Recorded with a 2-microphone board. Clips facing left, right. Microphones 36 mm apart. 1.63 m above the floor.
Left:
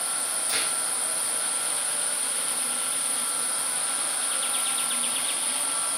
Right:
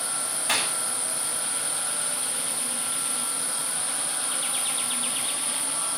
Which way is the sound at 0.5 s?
60° right (ahead or behind).